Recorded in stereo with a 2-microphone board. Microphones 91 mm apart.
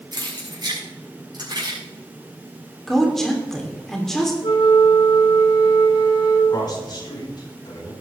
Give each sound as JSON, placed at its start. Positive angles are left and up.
{"t": 0.1, "sound": "keys jangling", "side_deg": -50, "distance_m": 6.0}
{"t": 2.9, "sound": "a woman speaking", "side_deg": 5, "distance_m": 3.0}
{"t": 4.4, "sound": "a flute", "side_deg": 75, "distance_m": 2.5}
{"t": 6.5, "sound": "a man speaking", "side_deg": 50, "distance_m": 4.0}